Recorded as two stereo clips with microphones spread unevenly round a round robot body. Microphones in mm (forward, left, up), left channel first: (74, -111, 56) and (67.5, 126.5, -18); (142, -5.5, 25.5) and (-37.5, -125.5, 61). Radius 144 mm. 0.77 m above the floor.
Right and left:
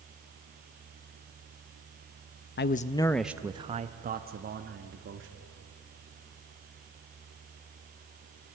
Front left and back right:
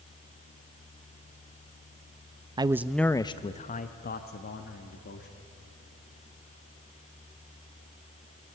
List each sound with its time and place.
2.6 s a man speaking: 80° right, 0.5 m; by 5.3 s 65° left, 1.4 m